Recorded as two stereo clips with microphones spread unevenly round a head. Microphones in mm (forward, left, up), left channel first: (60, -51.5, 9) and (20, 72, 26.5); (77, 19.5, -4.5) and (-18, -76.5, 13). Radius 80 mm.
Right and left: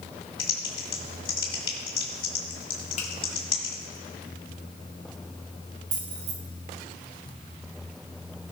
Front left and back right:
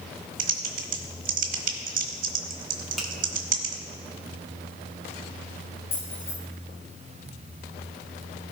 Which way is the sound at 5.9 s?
100° left.